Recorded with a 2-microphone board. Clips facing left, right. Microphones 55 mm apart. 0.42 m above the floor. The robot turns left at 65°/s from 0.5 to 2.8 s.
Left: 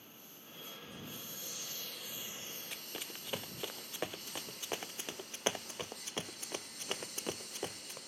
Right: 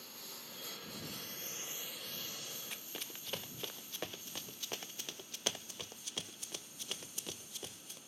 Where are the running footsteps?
Centre (ahead or behind); by 8.0 s 35° left (ahead or behind).